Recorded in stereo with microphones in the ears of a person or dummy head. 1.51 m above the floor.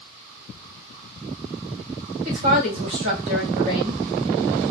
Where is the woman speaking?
40° right (ahead or behind), 1.9 m.